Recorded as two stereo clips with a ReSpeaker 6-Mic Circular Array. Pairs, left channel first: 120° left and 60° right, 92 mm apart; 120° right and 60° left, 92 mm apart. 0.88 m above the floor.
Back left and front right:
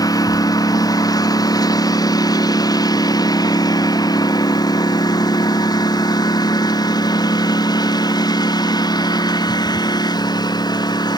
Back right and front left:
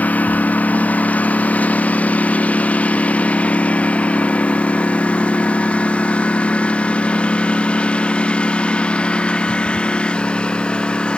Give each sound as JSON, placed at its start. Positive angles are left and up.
{"t": 0.0, "sound": "a lawn mower", "azimuth_deg": 165}